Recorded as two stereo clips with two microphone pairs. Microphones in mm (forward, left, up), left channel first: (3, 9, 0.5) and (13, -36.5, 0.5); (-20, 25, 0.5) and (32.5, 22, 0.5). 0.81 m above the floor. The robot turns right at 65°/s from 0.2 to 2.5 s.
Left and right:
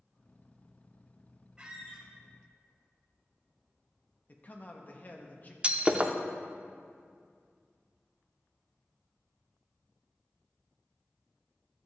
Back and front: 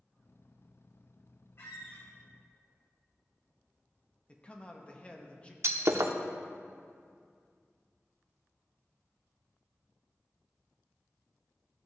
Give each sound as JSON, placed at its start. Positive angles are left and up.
{"t": 1.6, "sound": "a squeak", "azimuth_deg": -150, "distance_m": 2.5}
{"t": 4.3, "sound": "a man speaking", "azimuth_deg": 125, "distance_m": 0.9}
{"t": 5.6, "sound": "breaking glass", "azimuth_deg": -15, "distance_m": 0.6}